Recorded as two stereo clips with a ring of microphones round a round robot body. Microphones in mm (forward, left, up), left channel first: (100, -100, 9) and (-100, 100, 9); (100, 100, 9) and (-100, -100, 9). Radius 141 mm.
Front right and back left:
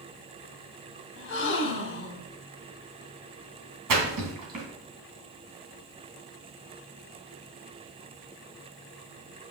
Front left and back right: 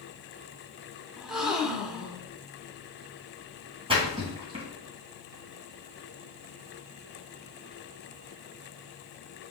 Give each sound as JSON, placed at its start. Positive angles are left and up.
{"t": 1.2, "sound": "a gasp", "azimuth_deg": -50, "distance_m": 0.9}
{"t": 3.9, "sound": "a splash", "azimuth_deg": 155, "distance_m": 2.5}